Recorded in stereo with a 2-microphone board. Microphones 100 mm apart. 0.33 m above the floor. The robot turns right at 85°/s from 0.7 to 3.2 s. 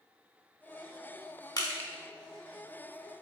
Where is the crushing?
35° left (ahead or behind), 0.7 m; by 1.9 s 15° left (ahead or behind), 0.7 m.